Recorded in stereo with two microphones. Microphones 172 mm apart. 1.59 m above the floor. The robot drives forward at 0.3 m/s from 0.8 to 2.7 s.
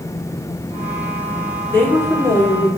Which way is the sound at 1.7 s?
15° left (ahead or behind).